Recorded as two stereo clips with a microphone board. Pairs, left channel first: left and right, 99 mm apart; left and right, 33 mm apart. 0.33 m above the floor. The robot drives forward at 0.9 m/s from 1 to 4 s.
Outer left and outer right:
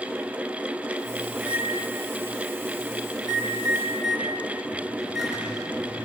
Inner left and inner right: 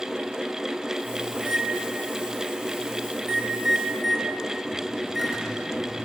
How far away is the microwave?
About 1.0 m.